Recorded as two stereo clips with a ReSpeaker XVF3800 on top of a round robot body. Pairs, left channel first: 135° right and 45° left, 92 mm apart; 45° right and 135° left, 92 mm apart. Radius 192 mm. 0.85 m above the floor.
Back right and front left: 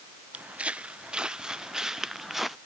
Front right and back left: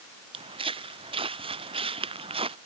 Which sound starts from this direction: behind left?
Footsteps, at 0.3 s.